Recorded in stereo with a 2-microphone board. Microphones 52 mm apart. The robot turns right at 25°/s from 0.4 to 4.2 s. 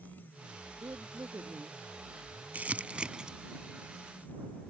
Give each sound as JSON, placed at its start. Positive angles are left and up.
{"t": 0.8, "sound": "a woman speaking", "side_deg": -75}
{"t": 2.5, "sound": "crumpling", "side_deg": -30}